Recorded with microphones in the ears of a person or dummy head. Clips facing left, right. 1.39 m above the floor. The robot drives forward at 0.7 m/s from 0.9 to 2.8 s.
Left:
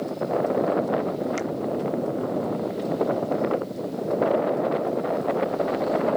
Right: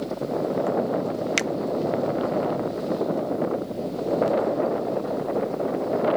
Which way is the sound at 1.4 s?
85° right.